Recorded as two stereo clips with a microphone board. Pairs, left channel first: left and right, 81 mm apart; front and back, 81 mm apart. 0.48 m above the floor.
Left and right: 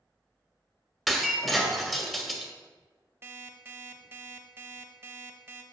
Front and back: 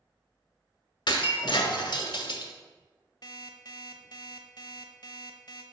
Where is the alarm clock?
30° right, 0.9 m.